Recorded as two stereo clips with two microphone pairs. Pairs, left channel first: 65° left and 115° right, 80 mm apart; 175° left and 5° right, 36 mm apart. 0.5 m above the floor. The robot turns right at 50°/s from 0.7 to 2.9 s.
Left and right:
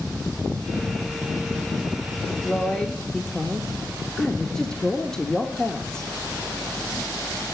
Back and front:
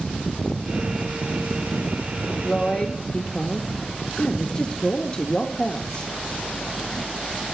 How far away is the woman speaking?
About 0.8 m.